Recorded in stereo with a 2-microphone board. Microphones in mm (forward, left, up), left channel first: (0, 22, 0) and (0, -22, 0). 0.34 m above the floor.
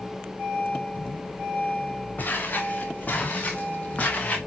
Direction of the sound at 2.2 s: 40° left (ahead or behind).